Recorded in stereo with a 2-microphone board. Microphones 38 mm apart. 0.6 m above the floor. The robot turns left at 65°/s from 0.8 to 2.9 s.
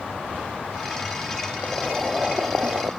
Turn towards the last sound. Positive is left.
turn(degrees=-60)